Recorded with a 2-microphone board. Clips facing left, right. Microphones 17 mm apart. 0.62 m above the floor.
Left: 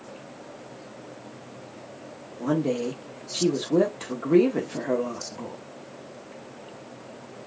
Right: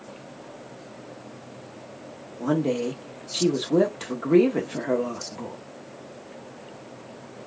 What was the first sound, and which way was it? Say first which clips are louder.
A woman speaking: right 1 dB; 20° right (ahead or behind).